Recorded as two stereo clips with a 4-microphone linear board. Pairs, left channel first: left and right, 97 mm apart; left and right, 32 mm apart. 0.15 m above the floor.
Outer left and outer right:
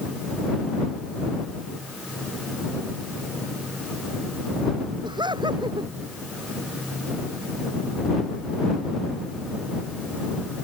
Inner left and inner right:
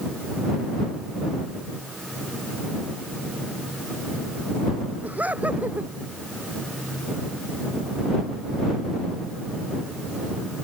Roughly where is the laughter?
Right.